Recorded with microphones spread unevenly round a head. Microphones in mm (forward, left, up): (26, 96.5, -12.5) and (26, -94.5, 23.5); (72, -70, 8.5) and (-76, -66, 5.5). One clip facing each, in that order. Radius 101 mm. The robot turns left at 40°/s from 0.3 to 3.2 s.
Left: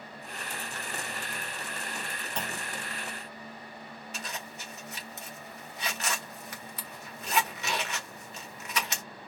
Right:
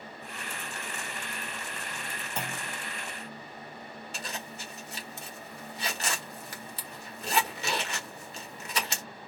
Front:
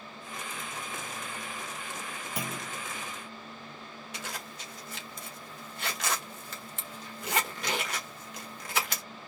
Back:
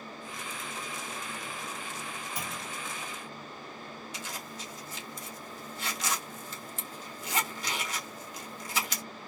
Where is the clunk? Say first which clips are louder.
Even, front 2 dB; straight ahead, 0.9 m; by 2.8 s 20° right, 0.9 m.